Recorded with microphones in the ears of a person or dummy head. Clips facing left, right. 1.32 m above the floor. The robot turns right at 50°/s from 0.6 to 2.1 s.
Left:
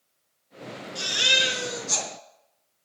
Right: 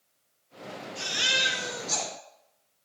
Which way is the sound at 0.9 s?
60° left.